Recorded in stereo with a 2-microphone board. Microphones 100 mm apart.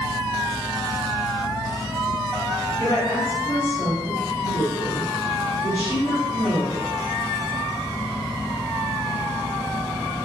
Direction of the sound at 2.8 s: 45° left (ahead or behind).